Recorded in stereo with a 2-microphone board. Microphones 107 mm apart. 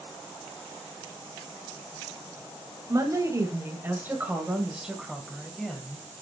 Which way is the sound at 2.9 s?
35° right (ahead or behind).